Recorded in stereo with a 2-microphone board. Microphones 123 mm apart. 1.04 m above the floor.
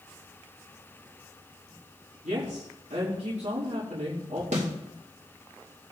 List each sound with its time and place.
2.2 s a woman speaking: 80° right, 3 m
4.5 s a snare drum: 80° right, 3 m